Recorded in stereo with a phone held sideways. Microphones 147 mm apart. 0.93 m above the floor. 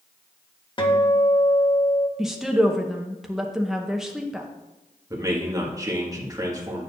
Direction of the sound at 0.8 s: 35° left (ahead or behind).